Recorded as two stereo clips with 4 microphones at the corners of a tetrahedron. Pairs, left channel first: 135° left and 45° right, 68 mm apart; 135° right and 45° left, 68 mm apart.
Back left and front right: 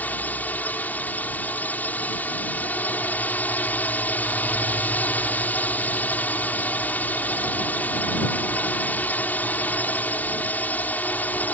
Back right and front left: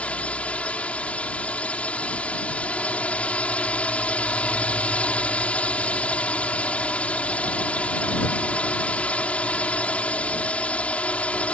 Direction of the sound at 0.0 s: 175° left.